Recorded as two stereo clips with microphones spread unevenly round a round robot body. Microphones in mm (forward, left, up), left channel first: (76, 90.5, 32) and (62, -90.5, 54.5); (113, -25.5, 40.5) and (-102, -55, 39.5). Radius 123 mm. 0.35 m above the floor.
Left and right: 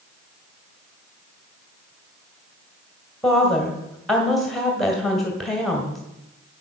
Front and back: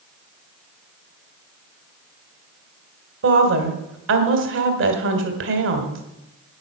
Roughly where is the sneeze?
I don't hear a sneeze.